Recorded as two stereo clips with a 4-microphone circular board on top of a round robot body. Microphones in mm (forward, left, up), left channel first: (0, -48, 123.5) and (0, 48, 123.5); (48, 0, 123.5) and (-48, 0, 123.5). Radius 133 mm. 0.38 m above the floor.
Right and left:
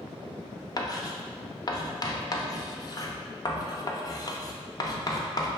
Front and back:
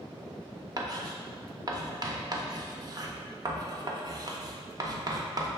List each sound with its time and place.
0.8 s writing: 135° right, 0.6 m